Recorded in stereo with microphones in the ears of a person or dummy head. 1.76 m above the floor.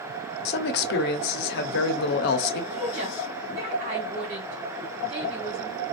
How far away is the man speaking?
About 0.8 m.